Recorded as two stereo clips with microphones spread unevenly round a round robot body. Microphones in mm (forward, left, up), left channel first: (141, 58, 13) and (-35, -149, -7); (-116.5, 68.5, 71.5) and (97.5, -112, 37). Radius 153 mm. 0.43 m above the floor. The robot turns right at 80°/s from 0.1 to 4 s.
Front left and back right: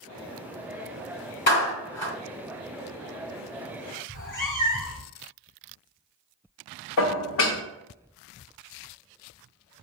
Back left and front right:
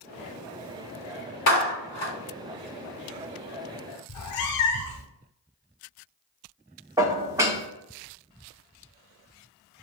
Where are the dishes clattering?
30° left, 0.7 m.